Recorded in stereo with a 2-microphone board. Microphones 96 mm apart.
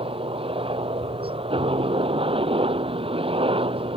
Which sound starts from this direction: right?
A helicopter, at 0.0 s.